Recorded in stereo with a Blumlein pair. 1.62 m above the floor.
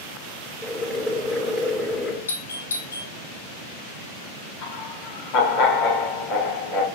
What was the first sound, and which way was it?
Boiling, 15° left.